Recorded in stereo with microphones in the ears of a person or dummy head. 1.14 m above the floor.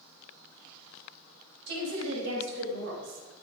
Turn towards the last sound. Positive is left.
turn(degrees=-80)